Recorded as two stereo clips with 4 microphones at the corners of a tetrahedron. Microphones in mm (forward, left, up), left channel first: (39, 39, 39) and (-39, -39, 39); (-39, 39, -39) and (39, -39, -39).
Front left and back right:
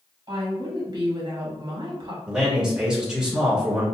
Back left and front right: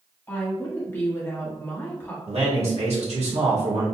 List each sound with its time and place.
0.3 s a woman speaking: 160° right, 1.1 m
2.3 s a man speaking: 50° right, 1.3 m